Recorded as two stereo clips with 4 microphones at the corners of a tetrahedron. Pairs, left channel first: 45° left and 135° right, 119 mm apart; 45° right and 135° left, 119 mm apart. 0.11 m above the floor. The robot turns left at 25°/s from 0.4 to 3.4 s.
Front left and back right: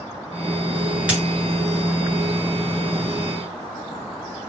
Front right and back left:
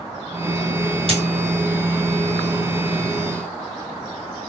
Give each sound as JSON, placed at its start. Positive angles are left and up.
{"t": 1.1, "sound": "a dropped coin", "azimuth_deg": 145, "distance_m": 1.2}